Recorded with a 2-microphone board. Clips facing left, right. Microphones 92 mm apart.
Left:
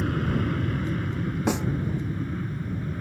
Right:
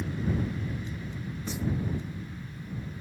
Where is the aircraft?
75° left (ahead or behind); by 3.0 s 70° left (ahead or behind).